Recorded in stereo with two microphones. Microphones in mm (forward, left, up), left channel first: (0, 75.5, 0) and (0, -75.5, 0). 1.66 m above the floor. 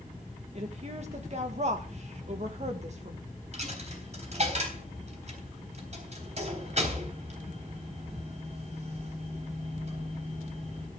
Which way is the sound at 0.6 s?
45° right (ahead or behind).